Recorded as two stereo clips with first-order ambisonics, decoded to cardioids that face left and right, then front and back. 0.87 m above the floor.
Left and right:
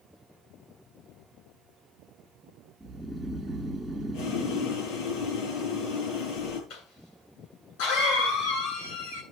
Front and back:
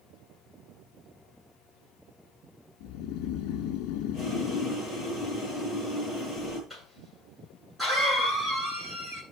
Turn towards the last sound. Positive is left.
turn(degrees=85)